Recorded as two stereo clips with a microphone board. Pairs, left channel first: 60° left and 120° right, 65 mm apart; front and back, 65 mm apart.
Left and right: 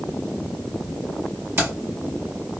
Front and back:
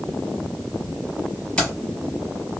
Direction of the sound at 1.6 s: 70° right.